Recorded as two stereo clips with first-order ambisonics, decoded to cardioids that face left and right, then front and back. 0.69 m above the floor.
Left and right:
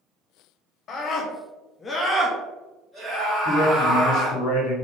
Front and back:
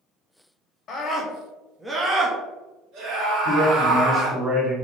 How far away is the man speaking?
About 1.4 m.